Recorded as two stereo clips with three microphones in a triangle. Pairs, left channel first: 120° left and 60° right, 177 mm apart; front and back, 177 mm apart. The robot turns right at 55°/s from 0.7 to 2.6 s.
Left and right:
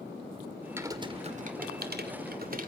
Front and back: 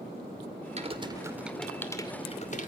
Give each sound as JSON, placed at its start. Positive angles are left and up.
{"t": 0.8, "sound": "typing on a keyboard", "azimuth_deg": -135, "distance_m": 2.5}